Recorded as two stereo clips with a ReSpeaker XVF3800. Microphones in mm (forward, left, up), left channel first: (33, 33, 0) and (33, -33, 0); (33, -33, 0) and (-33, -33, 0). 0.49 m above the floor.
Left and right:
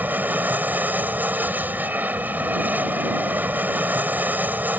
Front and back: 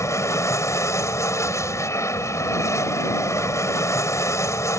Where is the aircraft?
30° right.